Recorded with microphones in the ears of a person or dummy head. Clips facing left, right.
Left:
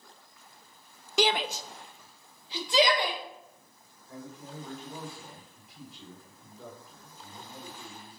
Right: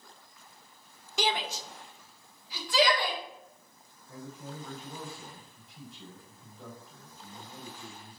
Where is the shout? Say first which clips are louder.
Left 4 dB; 65° left (ahead or behind), 0.6 m; by 3.2 s 25° left (ahead or behind), 1.7 m.